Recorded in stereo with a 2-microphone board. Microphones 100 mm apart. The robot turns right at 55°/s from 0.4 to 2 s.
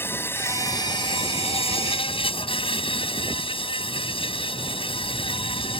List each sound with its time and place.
0.0 s an insect: 25° left; by 5.8 s 110° left